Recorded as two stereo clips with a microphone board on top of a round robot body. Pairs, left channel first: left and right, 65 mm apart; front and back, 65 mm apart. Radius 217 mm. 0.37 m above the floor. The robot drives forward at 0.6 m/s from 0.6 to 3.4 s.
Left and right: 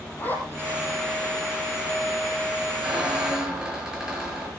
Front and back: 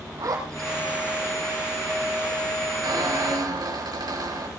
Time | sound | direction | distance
0.2 | a zipper | 150° left | 5.5 m
2.8 | a squeak | 170° right | 6 m